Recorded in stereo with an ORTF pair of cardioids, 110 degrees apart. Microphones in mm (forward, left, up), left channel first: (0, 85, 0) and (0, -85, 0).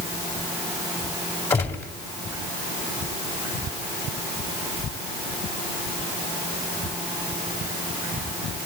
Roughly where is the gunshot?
Ahead.